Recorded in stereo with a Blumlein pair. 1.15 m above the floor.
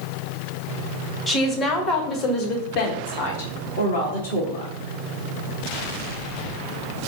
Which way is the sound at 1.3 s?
10° left.